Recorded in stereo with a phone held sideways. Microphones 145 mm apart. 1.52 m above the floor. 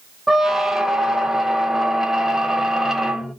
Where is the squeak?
5° right (ahead or behind), 0.6 m.